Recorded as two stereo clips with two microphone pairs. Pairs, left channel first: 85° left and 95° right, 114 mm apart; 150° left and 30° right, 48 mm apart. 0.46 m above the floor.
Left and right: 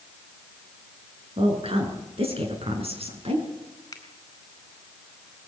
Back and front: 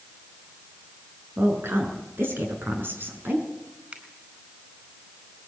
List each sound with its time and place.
1.4 s a woman speaking: 65° right, 6.5 m; by 3.5 s 70° right, 5.5 m
3.9 s a finger snap: 25° left, 5 m